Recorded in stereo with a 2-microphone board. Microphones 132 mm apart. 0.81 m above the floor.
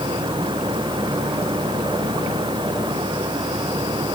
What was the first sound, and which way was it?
Only background noise.